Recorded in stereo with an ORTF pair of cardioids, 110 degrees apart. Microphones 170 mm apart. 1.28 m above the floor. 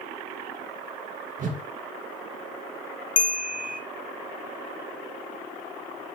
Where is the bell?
50° left, 1.3 m.